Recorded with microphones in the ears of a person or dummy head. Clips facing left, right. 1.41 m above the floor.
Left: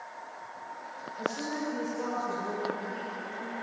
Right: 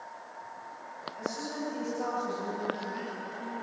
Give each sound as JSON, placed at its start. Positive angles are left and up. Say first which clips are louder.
{"t": 1.2, "sound": "a woman speaking", "louder": "left 2 dB", "side_deg": -85, "distance_m": 10.0}